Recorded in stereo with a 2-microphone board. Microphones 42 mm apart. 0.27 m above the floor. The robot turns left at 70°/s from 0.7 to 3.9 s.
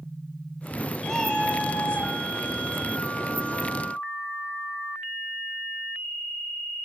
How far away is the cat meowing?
About 3 m.